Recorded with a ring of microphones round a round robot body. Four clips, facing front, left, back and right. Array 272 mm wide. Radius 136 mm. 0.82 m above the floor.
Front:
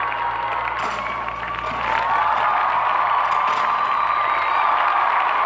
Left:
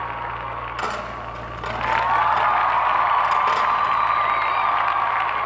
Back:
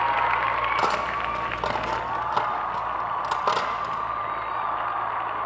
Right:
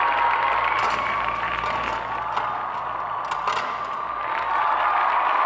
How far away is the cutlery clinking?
About 1.5 m.